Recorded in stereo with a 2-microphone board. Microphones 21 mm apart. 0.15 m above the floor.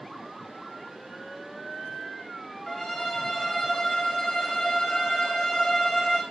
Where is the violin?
25° left (ahead or behind), 2 m.